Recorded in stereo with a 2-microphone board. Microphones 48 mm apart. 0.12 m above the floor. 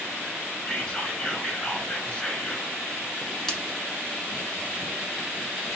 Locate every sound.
0.7 s whispering: 15° left (ahead or behind), 2.5 m
3.5 s a splash: 10° left (ahead or behind), 1.2 m